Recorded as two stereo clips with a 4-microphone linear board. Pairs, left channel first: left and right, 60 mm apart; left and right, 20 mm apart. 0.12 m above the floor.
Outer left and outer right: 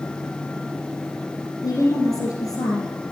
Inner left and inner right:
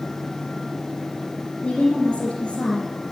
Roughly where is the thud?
I don't hear a thud.